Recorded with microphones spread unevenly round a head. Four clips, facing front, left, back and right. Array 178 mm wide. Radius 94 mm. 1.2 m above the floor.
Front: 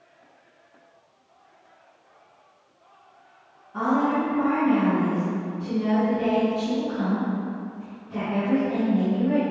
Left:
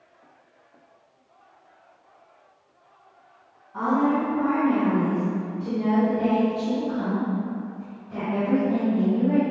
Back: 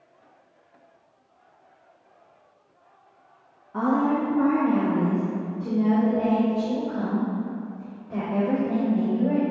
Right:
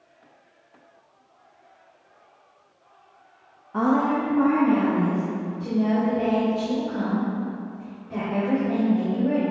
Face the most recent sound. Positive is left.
turn(degrees=-155)